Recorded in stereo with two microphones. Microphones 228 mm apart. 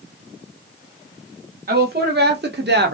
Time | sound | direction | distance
1.7 | a woman speaking | 45° right (ahead or behind) | 1.7 m